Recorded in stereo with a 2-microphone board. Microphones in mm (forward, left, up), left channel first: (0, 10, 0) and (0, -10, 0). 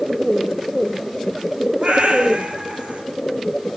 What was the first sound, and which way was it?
A cat meowing, 60° right (ahead or behind).